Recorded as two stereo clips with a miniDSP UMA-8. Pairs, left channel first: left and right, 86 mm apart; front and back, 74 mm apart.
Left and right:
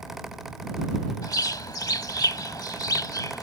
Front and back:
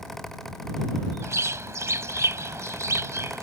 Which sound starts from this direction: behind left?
A bird, at 1.2 s.